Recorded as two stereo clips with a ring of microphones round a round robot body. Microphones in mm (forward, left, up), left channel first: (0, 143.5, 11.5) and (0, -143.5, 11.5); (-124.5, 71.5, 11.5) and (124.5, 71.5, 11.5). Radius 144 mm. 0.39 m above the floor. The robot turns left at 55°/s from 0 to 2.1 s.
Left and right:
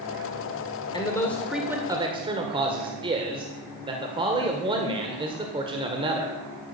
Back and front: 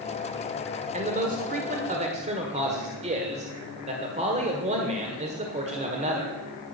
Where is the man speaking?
30° left, 1.5 m; by 6.4 s 35° right, 1.5 m.